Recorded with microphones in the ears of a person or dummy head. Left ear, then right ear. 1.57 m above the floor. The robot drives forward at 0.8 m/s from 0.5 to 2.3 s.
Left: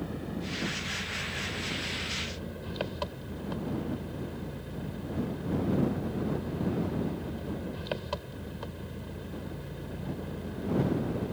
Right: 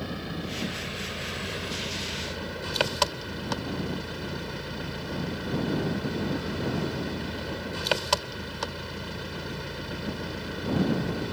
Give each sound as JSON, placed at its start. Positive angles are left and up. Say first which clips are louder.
{"t": 0.0, "sound": "an engine running", "louder": "right 3 dB", "side_deg": -45}